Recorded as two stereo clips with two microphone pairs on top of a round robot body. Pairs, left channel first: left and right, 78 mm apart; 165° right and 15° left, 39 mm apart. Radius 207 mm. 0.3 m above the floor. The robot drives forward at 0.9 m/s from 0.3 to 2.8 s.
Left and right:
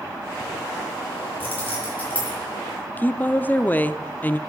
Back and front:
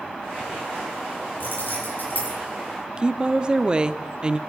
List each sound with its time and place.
1.4 s keys jangling: 160° left, 7 m; by 2.4 s 165° left, 8 m
3.0 s a woman speaking: 45° left, 0.9 m